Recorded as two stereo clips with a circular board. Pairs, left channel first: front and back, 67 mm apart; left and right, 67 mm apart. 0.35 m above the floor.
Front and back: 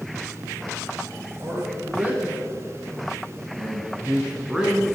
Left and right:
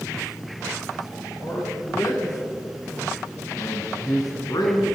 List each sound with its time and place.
1.4 s a man speaking: 120° left, 4.5 m; by 4.8 s 100° left, 3 m